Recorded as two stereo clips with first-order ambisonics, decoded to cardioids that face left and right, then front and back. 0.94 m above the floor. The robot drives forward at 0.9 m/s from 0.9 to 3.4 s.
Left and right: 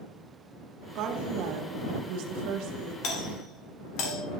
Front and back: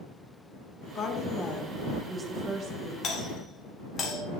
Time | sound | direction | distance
0.9 | a woman speaking | 50° right | 1.4 m
3.0 | a doorbell | 55° left | 1.8 m